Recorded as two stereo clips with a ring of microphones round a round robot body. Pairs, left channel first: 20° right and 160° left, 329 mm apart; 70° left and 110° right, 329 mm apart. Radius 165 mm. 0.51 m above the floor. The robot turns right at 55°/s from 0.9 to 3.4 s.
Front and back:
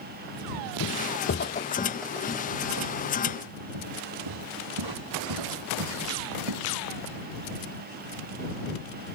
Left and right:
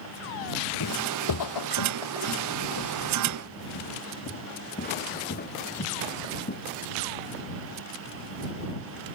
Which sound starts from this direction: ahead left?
Footsteps, at 0.8 s.